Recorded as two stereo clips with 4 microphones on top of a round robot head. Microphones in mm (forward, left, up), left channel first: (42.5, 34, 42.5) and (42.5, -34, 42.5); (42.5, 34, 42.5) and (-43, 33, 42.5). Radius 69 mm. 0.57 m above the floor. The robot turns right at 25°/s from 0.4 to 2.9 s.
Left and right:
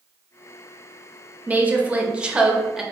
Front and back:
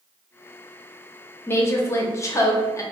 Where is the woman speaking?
45° right, 0.7 m; by 2.8 s 10° right, 0.7 m.